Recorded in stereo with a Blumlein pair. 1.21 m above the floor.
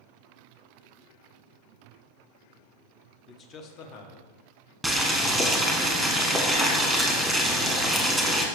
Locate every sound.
3.3 s a man speaking: 20° left, 0.8 m; by 4.7 s 55° left, 1.8 m
4.8 s boiling: 5° right, 1.3 m